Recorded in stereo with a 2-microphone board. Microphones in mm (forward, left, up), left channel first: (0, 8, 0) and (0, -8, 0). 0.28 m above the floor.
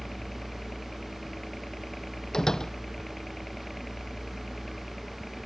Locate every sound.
0.0 s a helicopter: 25° left (ahead or behind); by 5.5 s 20° left (ahead or behind)
2.3 s a door slam: 40° left (ahead or behind)